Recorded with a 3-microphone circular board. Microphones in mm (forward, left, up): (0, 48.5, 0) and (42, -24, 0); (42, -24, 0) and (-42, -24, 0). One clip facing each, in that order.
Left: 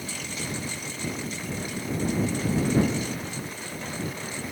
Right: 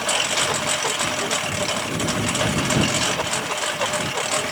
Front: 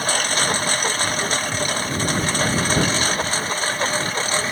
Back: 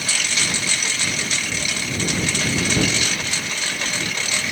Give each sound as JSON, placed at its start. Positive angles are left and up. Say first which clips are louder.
{"t": 0.0, "sound": "a lawn mower", "louder": "right 12 dB, front 5 dB", "azimuth_deg": -50}